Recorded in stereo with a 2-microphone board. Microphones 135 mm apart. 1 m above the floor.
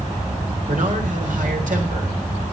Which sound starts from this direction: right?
A man speaking, at 0.7 s.